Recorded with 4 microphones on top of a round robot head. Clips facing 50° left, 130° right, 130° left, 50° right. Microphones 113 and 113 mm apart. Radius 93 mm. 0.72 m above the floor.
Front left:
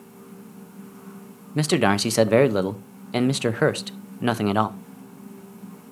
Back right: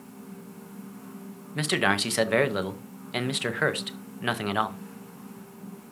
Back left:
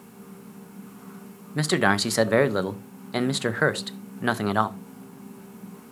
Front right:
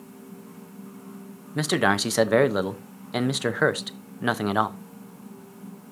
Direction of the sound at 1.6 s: 35° left.